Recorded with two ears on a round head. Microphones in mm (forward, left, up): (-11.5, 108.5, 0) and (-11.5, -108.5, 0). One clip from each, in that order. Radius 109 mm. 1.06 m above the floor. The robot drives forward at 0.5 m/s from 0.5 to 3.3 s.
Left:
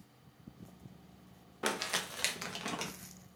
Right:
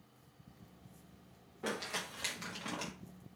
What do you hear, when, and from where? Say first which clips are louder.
1.6 s crumpling: left 4 dB; 50° left (ahead or behind), 0.6 m; by 2.9 s 25° left (ahead or behind), 1.0 m